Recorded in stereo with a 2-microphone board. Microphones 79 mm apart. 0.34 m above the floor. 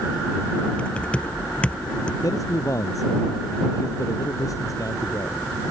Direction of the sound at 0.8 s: 15° left (ahead or behind).